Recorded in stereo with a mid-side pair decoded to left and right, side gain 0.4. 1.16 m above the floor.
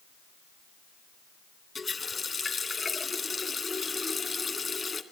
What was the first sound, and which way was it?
A running tap, 35° left.